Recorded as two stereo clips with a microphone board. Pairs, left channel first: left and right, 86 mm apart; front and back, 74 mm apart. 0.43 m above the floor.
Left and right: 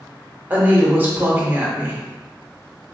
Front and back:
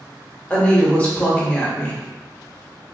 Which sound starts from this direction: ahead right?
A woman speaking, at 0.5 s.